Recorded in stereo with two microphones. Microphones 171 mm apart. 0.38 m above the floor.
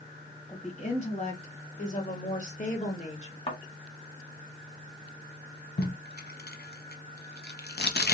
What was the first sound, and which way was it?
A woman speaking, 40° left (ahead or behind).